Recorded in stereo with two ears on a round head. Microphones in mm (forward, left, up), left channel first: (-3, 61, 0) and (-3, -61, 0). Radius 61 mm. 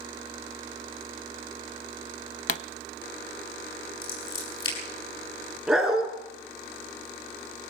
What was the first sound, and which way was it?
A pop, 60° left (ahead or behind).